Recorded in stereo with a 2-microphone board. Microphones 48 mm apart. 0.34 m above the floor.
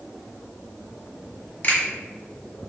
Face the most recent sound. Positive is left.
turn(degrees=40)  # may be behind; listen again after turning